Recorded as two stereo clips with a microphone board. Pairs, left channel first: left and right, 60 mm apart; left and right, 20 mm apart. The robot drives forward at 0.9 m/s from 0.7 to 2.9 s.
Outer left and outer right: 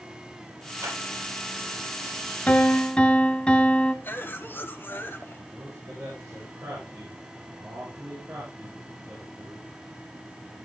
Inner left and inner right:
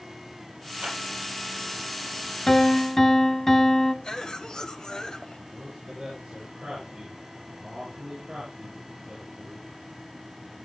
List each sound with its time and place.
0.8 s a clap: 60° right (ahead or behind), 7.5 m
2.5 s a piano: 25° left (ahead or behind), 0.7 m; by 3.9 s 15° left (ahead or behind), 1.1 m
4.0 s a cough: 40° left (ahead or behind), 1.7 m
5.5 s a man speaking: 35° right (ahead or behind), 7 m